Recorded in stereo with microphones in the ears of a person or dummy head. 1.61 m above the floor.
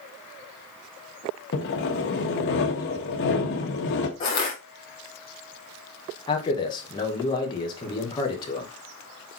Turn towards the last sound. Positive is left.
turn(degrees=20)  # may be behind; listen again after turning